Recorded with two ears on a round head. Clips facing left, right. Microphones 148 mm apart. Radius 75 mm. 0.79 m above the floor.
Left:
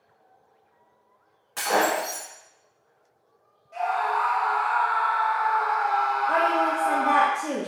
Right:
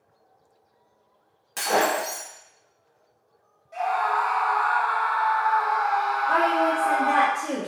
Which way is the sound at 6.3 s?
5° left (ahead or behind).